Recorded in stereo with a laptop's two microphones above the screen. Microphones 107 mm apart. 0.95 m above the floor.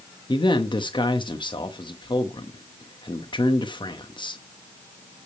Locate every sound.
0.3 s a man speaking: 45° left (ahead or behind), 0.9 m